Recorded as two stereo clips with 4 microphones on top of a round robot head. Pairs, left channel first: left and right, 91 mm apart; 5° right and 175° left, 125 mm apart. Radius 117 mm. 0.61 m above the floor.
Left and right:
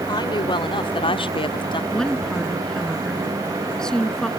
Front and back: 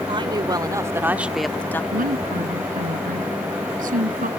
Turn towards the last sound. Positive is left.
turn(degrees=175)